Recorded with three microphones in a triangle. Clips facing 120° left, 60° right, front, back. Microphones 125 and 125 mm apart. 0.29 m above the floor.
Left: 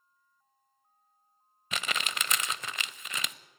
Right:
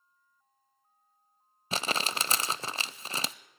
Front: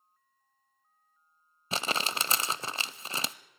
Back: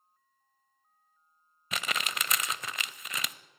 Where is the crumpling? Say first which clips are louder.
Right 4 dB, front 3 dB; 35° right, 0.5 m.